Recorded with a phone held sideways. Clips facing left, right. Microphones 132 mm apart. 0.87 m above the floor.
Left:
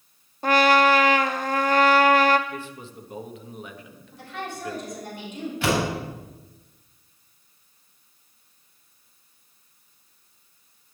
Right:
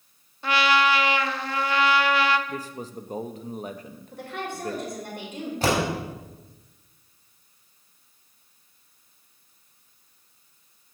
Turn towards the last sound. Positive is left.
turn(degrees=-40)  # may be behind; listen again after turning